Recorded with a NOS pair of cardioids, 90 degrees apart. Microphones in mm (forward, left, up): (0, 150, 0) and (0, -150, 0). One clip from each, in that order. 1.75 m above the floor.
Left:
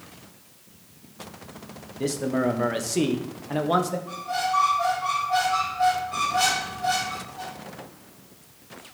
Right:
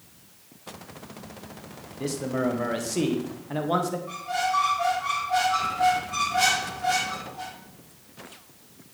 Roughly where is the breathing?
I don't hear breathing.